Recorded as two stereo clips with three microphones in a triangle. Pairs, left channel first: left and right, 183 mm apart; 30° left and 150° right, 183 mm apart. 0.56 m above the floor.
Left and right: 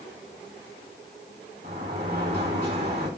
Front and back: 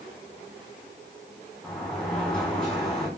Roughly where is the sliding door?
Ahead right.